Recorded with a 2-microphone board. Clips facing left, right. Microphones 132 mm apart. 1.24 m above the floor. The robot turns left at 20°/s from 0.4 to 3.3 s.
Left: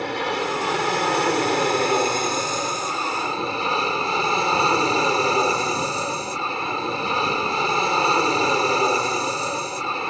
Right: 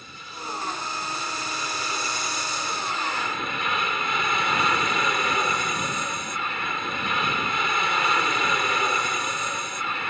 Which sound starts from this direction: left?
An aircraft, at 0.0 s.